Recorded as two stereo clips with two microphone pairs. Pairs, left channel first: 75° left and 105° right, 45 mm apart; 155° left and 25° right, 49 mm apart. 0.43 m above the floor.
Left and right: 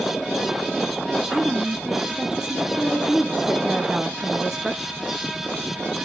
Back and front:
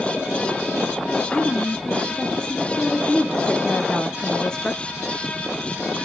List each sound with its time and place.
1.3 s a woman speaking: 165° right, 0.7 m